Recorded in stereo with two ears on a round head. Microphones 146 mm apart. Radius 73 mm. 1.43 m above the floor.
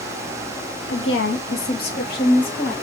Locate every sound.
0.9 s a woman speaking: 75° left (ahead or behind), 0.9 m; by 2.7 s 55° left (ahead or behind), 3.5 m